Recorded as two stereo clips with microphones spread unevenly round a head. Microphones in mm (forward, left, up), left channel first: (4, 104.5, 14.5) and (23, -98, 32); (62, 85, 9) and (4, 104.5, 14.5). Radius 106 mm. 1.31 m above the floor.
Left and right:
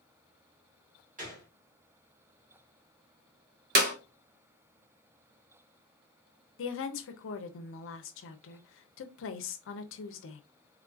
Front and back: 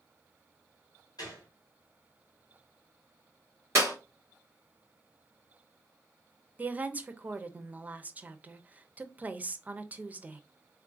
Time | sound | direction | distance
1.2 | a gunshot | 35° right | 1.7 m
3.8 | a clap | 130° right | 1.0 m
6.6 | a woman speaking | 95° left | 0.7 m